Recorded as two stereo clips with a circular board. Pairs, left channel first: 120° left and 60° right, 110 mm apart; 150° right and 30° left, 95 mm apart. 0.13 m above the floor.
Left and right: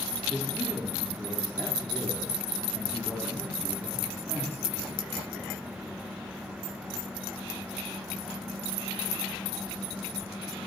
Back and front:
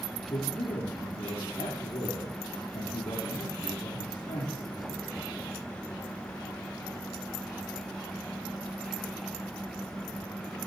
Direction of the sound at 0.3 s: 165° right.